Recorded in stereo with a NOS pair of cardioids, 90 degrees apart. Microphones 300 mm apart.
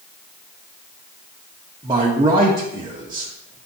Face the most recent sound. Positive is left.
turn(degrees=-15)